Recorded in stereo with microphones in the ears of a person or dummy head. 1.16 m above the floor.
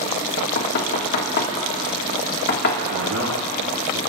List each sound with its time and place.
0.4 s knocking: 55° left (ahead or behind), 1.6 m
2.9 s a man speaking: 70° right (ahead or behind), 1.8 m